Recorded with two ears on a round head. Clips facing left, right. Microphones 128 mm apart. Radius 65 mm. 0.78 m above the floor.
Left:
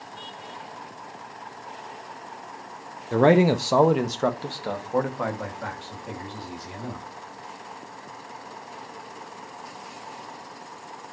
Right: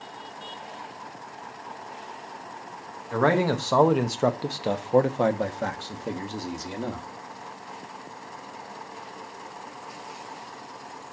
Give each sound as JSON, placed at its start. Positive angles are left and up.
{"t": 3.1, "sound": "a man speaking", "side_deg": 30, "distance_m": 0.8}